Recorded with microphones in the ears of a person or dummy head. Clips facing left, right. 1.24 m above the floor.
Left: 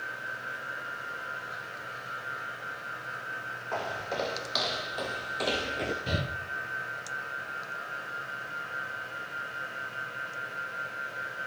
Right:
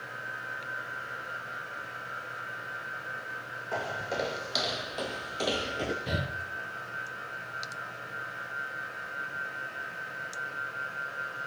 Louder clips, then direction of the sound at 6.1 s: Left 1 dB; centre (ahead or behind).